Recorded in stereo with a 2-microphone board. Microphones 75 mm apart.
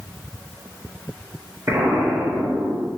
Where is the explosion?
35° right (ahead or behind), 1.3 m.